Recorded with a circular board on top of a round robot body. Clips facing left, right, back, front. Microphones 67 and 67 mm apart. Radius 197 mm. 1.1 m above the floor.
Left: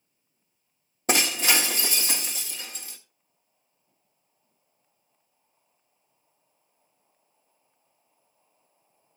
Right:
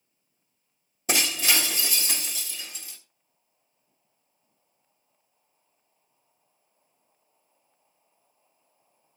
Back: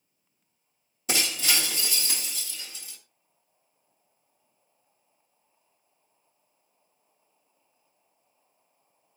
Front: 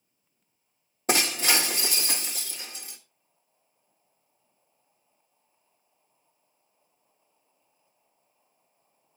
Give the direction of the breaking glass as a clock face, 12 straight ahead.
10 o'clock.